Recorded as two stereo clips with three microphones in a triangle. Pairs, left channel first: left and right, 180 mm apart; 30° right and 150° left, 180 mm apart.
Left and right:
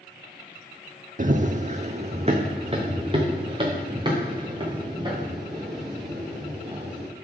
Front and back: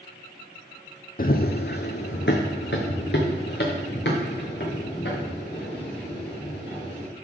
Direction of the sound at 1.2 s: 55° right.